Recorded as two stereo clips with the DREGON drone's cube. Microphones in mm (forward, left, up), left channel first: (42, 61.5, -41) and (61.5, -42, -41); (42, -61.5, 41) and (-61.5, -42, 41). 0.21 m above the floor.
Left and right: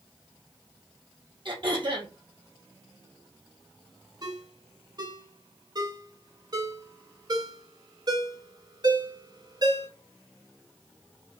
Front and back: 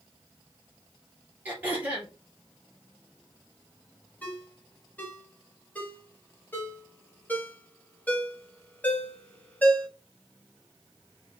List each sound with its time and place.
1.4 s throat clearing: 115° right, 1.9 m
4.2 s a ringtone: 80° right, 1.3 m